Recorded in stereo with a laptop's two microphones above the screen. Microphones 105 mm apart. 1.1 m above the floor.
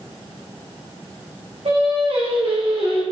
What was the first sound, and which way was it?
Singing, 75° right (ahead or behind).